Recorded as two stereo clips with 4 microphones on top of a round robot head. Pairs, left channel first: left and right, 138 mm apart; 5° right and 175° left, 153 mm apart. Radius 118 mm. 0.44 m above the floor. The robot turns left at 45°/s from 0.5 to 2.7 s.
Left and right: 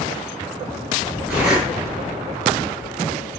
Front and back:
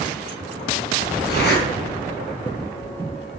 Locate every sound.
1.3 s a zipper: 10° right, 7 m; by 1.6 s 25° right, 7 m